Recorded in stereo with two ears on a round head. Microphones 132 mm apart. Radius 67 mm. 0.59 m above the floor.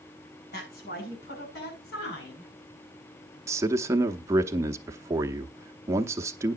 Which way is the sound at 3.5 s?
20° right (ahead or behind).